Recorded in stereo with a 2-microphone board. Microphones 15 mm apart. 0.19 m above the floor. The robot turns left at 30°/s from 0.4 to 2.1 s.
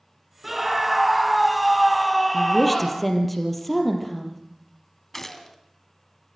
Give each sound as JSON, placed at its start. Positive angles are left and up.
{"t": 0.4, "sound": "a scream", "side_deg": -10, "distance_m": 1.0}
{"t": 2.3, "sound": "a woman speaking", "side_deg": 5, "distance_m": 4.5}
{"t": 5.1, "sound": "a gunshot", "side_deg": 20, "distance_m": 1.8}